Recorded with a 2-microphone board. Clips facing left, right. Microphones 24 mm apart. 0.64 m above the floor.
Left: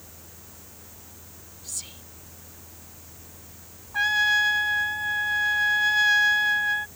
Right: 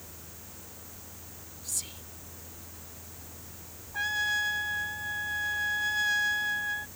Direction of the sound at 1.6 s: 5° left (ahead or behind).